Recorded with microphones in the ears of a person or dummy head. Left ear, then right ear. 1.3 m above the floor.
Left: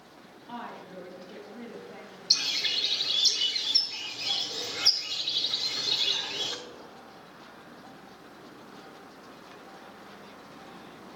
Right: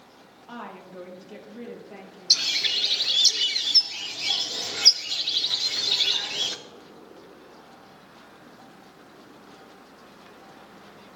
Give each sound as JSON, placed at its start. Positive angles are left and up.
{"t": 0.5, "sound": "a woman speaking", "side_deg": -55, "distance_m": 1.9}
{"t": 2.3, "sound": "a bird", "side_deg": -20, "distance_m": 0.6}